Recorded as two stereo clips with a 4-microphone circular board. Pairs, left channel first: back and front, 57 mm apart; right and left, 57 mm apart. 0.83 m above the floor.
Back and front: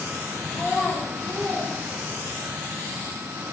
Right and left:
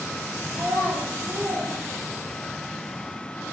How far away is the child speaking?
About 0.5 m.